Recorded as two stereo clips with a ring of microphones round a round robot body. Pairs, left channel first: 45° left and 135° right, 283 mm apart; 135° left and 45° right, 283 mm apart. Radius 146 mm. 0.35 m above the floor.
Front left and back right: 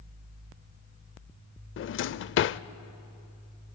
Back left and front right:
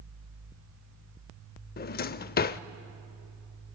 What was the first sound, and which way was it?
A drawer, 85° left.